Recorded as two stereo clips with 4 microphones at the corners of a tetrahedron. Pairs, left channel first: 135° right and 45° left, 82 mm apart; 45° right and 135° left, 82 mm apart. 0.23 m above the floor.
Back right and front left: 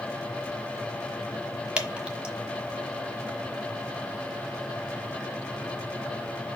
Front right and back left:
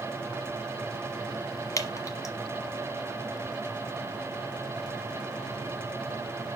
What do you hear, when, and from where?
1.8 s dripping: 25° right, 1.2 m